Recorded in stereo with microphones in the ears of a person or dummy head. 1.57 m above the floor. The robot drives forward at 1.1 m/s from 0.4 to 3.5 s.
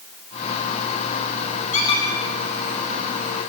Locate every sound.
1.7 s a squeak: 40° left (ahead or behind), 1.2 m; by 2.1 s 30° left (ahead or behind), 1.5 m